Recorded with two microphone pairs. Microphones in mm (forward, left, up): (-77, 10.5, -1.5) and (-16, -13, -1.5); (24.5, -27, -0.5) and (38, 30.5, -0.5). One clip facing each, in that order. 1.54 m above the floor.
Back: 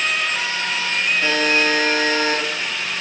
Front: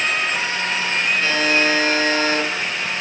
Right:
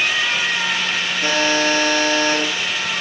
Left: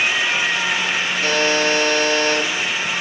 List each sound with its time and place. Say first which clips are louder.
1.2 s a buzzer: back 1 dB, right 1 dB; 170° right, 5 m